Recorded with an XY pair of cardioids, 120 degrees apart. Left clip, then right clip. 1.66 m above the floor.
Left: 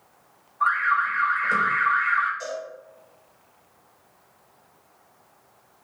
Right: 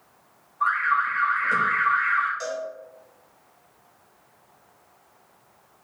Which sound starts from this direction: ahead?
An alarm, at 0.6 s.